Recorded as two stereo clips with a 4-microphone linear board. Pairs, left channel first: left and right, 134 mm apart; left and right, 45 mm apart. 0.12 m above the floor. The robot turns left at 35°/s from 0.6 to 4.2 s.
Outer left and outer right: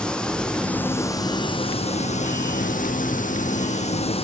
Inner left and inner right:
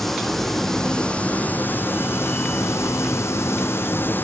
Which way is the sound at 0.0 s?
175° left.